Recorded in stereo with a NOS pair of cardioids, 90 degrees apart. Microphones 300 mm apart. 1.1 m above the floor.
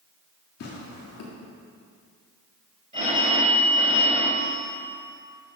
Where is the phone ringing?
25° right, 4.5 m.